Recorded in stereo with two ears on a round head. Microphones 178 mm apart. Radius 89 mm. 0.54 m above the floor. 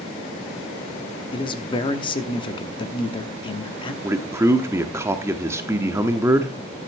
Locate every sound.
1.3 s a man speaking: 25° left (ahead or behind), 0.9 m
4.0 s a man speaking: 15° right (ahead or behind), 0.8 m